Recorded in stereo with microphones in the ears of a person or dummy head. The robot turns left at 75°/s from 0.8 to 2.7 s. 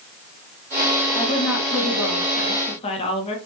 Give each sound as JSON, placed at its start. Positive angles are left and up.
{"t": 1.1, "sound": "a woman speaking", "azimuth_deg": 150, "distance_m": 1.7}